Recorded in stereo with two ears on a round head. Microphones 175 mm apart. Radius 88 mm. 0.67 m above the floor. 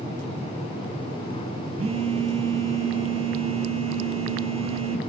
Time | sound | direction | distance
1.8 | a phone buzzing | 30° right (ahead or behind) | 0.9 m